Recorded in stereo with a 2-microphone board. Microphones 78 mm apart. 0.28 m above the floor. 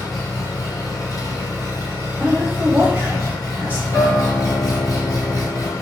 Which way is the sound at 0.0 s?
55° left (ahead or behind).